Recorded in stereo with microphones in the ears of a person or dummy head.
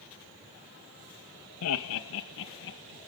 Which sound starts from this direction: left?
Laughter, at 1.6 s.